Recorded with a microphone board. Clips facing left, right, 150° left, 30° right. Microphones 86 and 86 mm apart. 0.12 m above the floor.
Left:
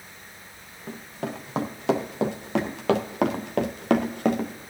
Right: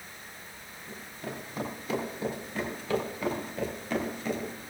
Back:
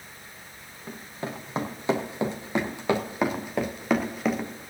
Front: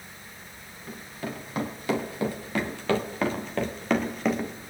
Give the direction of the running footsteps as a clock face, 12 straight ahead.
9 o'clock.